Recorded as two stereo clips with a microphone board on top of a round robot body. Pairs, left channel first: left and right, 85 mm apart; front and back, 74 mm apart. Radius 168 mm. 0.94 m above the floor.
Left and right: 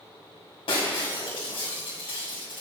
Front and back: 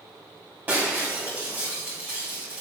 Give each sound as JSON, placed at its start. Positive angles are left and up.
{"t": 0.7, "sound": "breaking glass", "azimuth_deg": 110, "distance_m": 2.0}